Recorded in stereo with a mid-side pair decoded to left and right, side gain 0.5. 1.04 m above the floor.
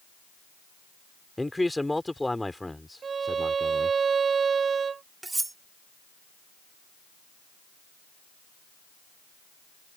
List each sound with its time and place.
1.4 s a man speaking: 10° left
3.0 s a violin: 40° right
5.2 s cutlery clinking: 20° right